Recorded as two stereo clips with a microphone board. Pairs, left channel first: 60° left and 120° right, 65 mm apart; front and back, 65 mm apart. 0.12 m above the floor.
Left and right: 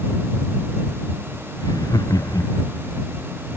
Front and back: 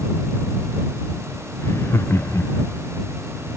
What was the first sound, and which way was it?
Laughter, 50° left.